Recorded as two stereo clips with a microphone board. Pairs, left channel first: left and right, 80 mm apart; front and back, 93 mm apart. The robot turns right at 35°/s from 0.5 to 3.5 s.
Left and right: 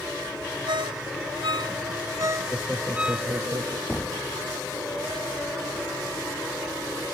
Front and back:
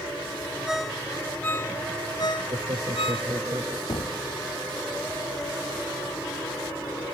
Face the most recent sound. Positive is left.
turn(degrees=15)